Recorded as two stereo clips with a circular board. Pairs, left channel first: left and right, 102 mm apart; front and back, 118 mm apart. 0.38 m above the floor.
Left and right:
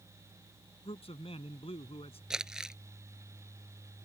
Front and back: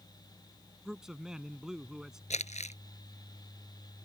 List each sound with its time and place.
0.8 s a man speaking: 95° left
2.3 s crumpling: 5° right